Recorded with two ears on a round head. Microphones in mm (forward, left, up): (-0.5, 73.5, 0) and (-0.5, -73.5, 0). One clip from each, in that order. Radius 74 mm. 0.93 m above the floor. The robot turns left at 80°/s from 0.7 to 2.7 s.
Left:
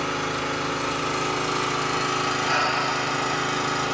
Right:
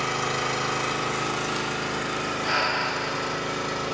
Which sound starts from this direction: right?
Breathing, at 2.4 s.